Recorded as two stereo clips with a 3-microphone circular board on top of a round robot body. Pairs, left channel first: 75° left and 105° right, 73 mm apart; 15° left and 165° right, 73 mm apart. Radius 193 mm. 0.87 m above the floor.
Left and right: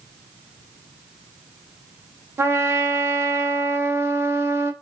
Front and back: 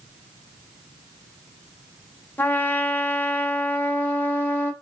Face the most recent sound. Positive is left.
turn(degrees=-50)